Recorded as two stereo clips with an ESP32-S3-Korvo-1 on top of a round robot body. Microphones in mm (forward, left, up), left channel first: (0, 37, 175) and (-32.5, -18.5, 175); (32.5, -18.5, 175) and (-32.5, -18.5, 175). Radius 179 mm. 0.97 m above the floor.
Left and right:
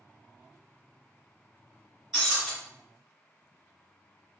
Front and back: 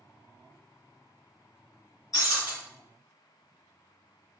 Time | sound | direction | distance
2.1 | breaking glass | 30° right | 1.6 m